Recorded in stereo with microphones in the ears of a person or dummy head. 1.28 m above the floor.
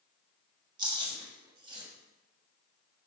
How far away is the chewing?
About 1.1 m.